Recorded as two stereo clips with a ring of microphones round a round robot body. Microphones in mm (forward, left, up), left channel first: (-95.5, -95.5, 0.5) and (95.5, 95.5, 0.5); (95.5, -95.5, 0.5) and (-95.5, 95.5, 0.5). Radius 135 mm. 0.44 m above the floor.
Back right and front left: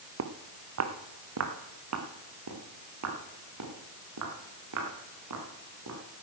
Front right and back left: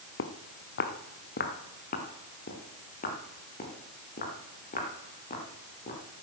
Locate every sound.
0.2 s footsteps: straight ahead, 1.4 m; by 6.0 s 20° left, 5.5 m